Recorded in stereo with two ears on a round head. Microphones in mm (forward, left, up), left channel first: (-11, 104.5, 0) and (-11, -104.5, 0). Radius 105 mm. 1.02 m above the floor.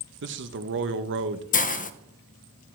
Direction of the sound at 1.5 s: 35° left (ahead or behind).